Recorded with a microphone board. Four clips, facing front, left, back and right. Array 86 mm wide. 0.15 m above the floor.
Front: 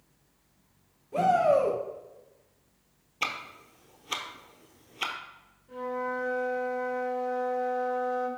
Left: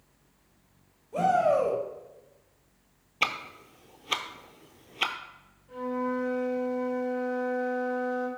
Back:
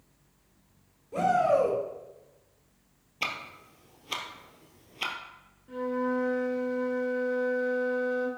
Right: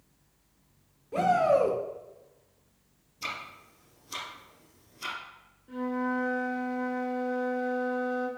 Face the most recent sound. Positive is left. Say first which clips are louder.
# even, back 3 dB
turn(degrees=-140)